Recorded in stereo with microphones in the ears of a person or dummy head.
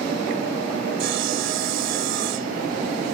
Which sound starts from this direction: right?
Sawing, at 1.0 s.